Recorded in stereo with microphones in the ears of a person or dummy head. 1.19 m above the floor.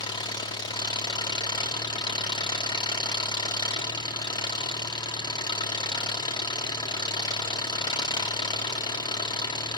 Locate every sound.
0.0 s an engine running: 30° left (ahead or behind), 1.2 m